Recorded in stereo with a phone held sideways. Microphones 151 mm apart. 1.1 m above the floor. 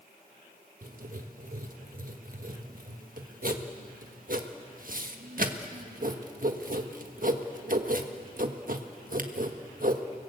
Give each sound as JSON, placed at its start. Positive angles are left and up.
{"t": 0.8, "sound": "writing", "side_deg": -60, "distance_m": 1.4}